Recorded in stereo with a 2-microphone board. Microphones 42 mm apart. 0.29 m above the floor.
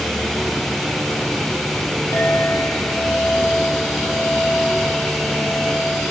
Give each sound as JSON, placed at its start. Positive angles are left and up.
{"t": 2.1, "sound": "a clink", "side_deg": 75, "distance_m": 7.5}